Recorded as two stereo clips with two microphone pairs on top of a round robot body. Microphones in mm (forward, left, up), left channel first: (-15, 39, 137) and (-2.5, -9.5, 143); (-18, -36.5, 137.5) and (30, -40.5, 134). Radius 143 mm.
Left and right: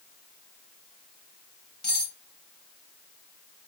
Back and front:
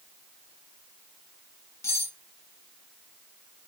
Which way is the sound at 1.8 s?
Straight behind.